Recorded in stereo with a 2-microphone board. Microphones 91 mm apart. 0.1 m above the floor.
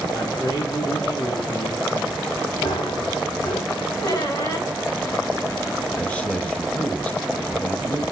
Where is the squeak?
45° left (ahead or behind), 5.5 m.